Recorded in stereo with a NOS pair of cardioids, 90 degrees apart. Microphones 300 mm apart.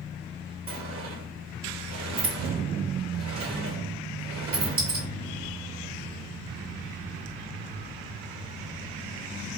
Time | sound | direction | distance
0.7 | a sliding door | 45° right | 1.2 m